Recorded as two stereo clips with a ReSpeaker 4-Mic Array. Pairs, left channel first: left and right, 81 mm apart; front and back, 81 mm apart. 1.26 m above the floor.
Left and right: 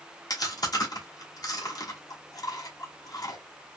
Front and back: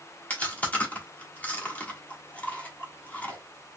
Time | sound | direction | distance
0.3 | chewing | 65° left | 1.2 m